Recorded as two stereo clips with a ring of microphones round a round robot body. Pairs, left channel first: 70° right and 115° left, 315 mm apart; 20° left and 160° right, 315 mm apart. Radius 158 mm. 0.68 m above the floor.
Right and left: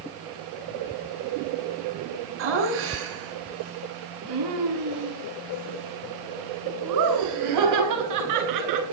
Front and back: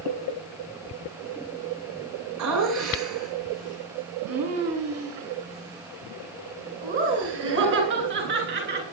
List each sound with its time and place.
2.4 s laughter: 165° left, 8 m; by 8.9 s 145° left, 10 m